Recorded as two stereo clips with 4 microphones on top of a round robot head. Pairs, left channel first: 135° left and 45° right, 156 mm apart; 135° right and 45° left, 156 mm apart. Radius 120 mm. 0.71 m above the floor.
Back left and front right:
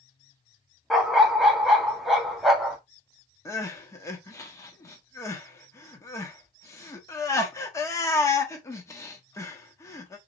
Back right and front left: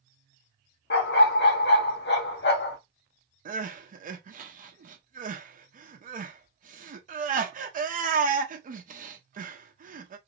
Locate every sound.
0.9 s a dog barking: 135° right, 1.1 m
3.5 s crying: 65° left, 1.1 m